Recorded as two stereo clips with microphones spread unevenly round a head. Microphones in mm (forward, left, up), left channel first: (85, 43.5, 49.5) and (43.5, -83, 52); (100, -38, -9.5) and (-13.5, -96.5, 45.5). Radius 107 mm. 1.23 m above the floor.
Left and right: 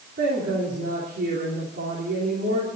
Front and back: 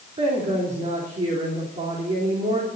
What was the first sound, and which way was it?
A woman speaking, 120° right.